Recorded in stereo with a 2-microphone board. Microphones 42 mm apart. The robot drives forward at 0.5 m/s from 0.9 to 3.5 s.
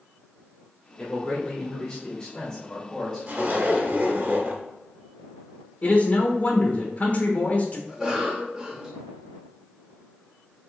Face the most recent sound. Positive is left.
turn(degrees=-20)  # may be behind; listen again after turning